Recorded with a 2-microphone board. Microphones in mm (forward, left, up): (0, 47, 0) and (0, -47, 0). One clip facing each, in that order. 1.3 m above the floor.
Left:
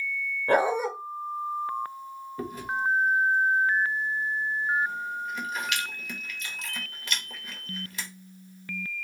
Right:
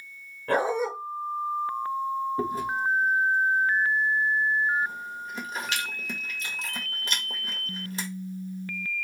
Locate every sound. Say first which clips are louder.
0.5 s a dog barking: left 1 dB; 15° left (ahead or behind), 1.6 m
2.4 s chewing: right 3 dB; 35° right (ahead or behind), 1.1 m